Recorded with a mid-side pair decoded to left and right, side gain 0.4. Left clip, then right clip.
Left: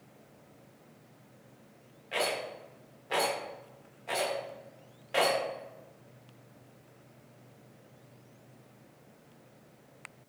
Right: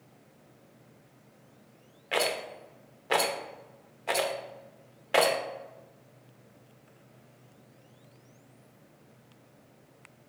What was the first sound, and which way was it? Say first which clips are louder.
A rattle: right 3 dB; 70° right.